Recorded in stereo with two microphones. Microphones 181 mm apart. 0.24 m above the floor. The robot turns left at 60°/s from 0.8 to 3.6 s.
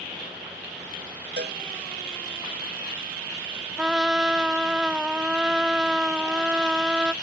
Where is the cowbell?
70° right (ahead or behind); by 1.6 s 60° right (ahead or behind).